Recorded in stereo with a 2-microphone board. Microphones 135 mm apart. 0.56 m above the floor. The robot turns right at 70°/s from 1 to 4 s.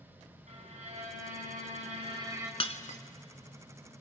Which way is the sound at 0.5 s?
120° right.